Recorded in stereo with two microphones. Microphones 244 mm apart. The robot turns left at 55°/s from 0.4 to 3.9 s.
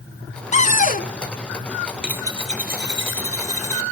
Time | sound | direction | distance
0.5 | a cupboard door | 125° left | 1.1 m
2.0 | a dropped coin | 5° right | 1.5 m